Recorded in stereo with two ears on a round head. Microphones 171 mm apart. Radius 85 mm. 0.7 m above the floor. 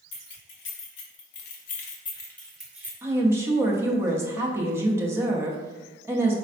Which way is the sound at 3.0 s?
15° right (ahead or behind).